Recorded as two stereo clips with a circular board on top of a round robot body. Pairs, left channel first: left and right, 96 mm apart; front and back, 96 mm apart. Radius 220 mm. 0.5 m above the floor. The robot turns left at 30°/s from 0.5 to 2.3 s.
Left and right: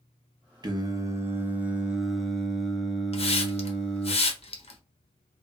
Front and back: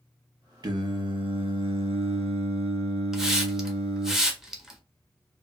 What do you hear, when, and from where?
0.6 s singing: 135° right, 0.8 m; by 4.1 s 175° left, 0.8 m
3.1 s a hiss: 95° left, 0.9 m